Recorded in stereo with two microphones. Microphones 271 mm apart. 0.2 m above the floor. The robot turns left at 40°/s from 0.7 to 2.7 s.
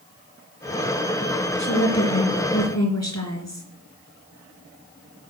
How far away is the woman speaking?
About 3.5 m.